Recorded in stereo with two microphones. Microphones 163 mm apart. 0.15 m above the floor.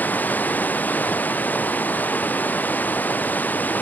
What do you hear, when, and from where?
0.0 s running water: 10° left (ahead or behind)